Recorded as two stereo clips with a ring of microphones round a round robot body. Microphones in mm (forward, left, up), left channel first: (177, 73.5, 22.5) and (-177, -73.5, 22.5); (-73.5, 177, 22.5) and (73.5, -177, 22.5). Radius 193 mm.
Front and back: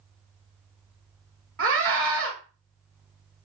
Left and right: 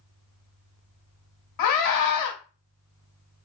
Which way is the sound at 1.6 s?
145° left.